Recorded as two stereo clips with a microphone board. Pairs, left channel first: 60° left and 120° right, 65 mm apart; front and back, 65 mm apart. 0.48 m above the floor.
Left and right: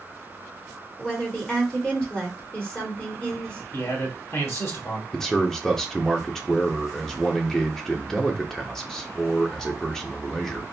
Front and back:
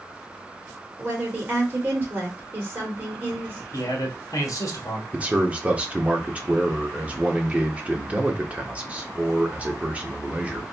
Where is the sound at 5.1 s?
135° left, 0.9 m.